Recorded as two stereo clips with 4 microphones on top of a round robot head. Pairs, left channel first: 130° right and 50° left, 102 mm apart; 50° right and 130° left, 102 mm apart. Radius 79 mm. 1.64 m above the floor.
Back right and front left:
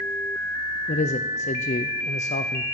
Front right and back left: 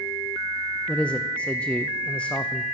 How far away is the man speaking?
About 0.7 m.